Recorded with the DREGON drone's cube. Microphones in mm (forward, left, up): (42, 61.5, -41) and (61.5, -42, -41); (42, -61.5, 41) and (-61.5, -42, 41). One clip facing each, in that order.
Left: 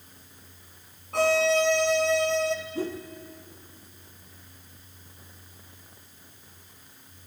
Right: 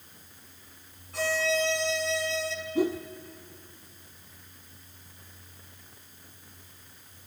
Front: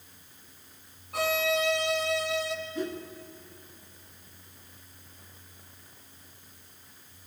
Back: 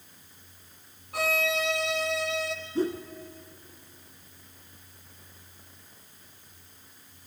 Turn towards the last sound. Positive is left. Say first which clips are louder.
# right 5 dB, back 8 dB
turn(degrees=-150)